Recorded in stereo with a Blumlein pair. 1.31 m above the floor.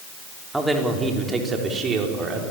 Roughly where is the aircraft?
I don't hear an aircraft.